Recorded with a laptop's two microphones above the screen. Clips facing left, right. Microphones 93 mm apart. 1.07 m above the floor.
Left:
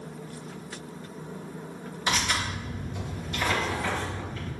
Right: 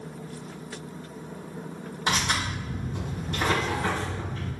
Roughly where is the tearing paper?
Right.